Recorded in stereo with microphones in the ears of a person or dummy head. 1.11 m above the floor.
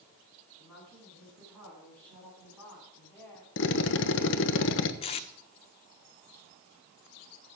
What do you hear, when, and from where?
0.6 s a woman speaking: 5° left (ahead or behind), 9.5 m; by 3.5 s 10° left (ahead or behind), 7 m
3.6 s a drill: 55° left (ahead or behind), 1.1 m
5.0 s tape being pulled: 35° left (ahead or behind), 0.8 m